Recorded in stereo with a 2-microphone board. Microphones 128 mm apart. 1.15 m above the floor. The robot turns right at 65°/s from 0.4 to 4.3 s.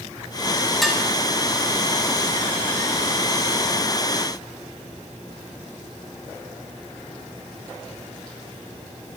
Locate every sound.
0.8 s dishes clattering: centre (ahead or behind), 5.5 m; by 1.0 s 10° left (ahead or behind), 5.5 m